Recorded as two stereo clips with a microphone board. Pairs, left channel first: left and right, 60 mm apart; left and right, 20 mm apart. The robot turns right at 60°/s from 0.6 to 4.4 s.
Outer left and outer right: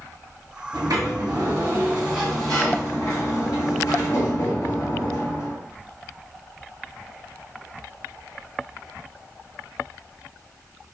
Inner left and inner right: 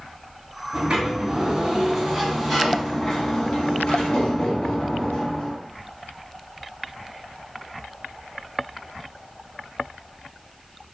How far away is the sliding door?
About 1.1 m.